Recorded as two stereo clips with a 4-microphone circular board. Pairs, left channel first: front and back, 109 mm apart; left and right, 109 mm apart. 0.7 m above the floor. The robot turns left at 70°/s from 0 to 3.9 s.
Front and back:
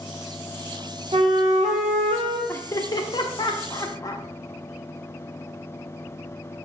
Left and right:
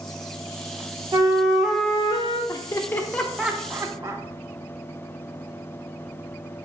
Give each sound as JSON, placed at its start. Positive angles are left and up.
{"t": 1.1, "sound": "a flute", "azimuth_deg": -145, "distance_m": 0.7}
{"t": 2.5, "sound": "laughter", "azimuth_deg": 60, "distance_m": 0.6}